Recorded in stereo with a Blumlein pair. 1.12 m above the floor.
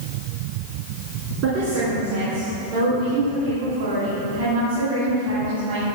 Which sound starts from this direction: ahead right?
A woman speaking, at 1.4 s.